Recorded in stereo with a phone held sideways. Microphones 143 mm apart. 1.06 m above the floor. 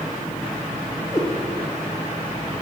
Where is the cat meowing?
20° left (ahead or behind), 5 m.